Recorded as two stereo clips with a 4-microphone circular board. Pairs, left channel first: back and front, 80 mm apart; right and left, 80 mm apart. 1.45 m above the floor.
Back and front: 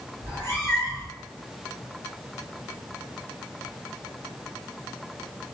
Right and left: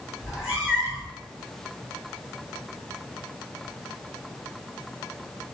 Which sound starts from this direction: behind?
A cat meowing, at 0.2 s.